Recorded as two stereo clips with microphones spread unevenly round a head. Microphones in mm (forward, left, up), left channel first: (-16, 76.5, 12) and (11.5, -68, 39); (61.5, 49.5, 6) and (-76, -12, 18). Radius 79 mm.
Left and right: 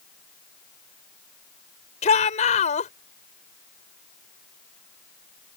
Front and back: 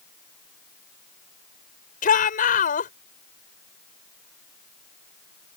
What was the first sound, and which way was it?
A shout, 55° left.